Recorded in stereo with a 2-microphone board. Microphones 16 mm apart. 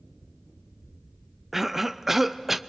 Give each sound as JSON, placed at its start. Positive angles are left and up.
{"t": 1.5, "sound": "a cough", "side_deg": -20, "distance_m": 0.5}